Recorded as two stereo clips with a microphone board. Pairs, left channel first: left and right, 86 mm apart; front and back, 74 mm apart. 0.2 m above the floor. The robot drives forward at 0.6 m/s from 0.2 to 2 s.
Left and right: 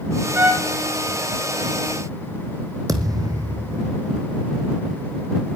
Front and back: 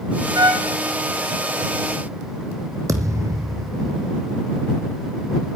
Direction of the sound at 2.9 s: 135° right.